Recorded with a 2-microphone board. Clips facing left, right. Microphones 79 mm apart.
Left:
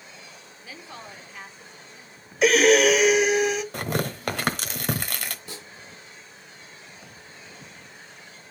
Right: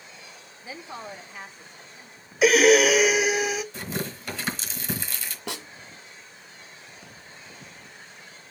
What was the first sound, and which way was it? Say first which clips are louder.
A woman speaking: right 4 dB; 20° right (ahead or behind).